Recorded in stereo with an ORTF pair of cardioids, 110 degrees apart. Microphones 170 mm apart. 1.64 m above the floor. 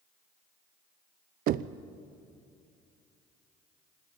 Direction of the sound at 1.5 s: 65° right.